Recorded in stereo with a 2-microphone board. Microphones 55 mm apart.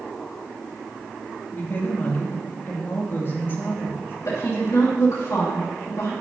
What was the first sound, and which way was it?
A woman speaking, 45° left (ahead or behind).